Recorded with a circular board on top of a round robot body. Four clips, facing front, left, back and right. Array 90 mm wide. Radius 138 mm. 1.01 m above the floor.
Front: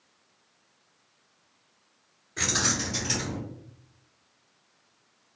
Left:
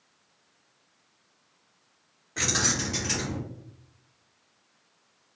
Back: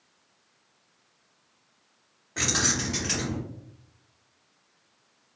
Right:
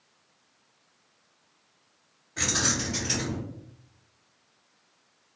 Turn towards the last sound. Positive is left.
turn(degrees=155)